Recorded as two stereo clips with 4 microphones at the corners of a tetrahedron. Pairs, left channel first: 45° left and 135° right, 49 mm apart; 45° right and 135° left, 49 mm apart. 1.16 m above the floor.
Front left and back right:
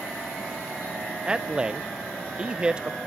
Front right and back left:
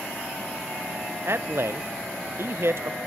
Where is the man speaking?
155° left, 0.5 m.